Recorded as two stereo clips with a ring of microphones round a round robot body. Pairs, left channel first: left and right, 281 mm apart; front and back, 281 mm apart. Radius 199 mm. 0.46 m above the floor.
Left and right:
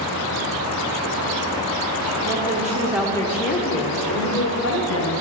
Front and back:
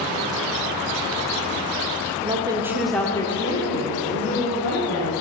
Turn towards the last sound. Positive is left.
turn(degrees=60)